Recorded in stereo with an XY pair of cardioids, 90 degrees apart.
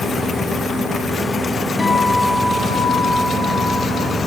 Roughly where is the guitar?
Ahead left.